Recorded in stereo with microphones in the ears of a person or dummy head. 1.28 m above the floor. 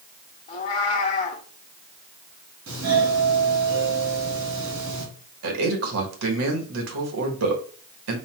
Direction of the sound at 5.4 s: 80° right.